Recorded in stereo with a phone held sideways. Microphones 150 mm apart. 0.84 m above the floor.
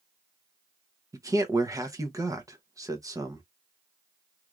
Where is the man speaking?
20° right (ahead or behind), 0.8 m.